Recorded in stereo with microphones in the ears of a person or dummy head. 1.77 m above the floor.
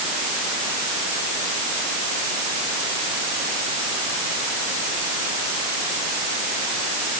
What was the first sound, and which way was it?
Only background noise.